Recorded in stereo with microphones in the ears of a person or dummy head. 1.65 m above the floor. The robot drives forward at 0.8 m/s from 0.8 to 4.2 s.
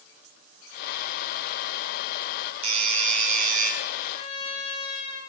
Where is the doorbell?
30° right (ahead or behind), 2 m; by 3.7 s 45° right (ahead or behind), 1.4 m.